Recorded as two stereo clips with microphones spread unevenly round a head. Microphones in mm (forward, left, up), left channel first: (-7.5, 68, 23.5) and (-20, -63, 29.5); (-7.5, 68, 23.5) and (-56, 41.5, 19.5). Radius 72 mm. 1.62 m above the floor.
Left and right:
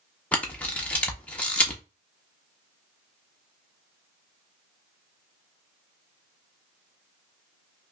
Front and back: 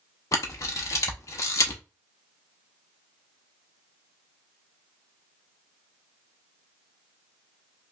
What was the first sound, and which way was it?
A camera shutter, 5° left.